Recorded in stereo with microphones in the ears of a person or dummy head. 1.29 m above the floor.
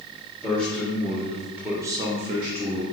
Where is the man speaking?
5° left (ahead or behind), 1.9 m; by 2.8 s 30° right (ahead or behind), 0.8 m.